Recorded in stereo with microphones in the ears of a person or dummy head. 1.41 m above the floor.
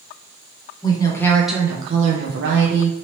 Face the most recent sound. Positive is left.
turn(degrees=-70)  # may be behind; listen again after turning